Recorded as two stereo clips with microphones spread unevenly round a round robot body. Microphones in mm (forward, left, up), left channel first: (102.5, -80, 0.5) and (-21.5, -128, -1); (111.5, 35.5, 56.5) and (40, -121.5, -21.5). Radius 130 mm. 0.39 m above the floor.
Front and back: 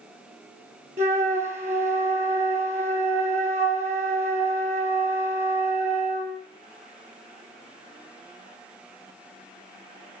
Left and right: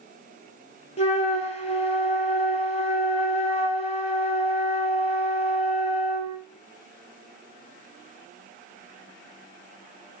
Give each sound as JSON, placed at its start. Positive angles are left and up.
{"t": 1.0, "sound": "a flute", "azimuth_deg": 135, "distance_m": 0.6}